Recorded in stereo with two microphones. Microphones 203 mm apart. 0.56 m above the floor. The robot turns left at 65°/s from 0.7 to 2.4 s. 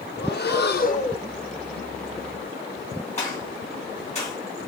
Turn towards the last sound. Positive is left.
turn(degrees=30)  # may be behind; listen again after turning